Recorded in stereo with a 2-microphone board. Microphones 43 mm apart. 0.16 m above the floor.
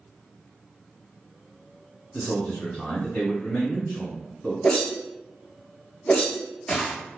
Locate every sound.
2.1 s a man speaking: 15° left (ahead or behind), 1.5 m
4.6 s a whoosh: 25° left (ahead or behind), 0.8 m